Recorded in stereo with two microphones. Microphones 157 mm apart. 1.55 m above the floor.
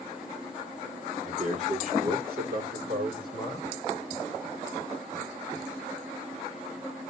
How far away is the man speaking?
About 3 m.